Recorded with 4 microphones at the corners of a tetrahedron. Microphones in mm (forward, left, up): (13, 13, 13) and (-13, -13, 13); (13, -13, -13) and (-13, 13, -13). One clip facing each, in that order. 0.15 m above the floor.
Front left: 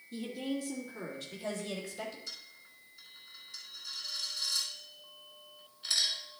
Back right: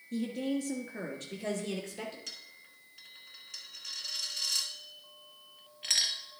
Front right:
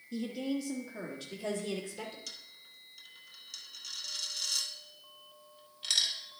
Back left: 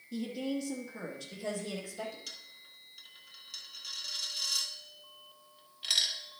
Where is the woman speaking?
145° right, 2.5 m; by 2.2 s 105° right, 2.5 m.